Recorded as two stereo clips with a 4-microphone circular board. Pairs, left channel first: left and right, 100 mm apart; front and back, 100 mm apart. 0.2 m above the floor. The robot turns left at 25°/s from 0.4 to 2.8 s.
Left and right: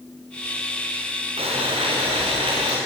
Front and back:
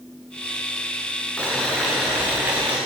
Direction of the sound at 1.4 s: 80° right.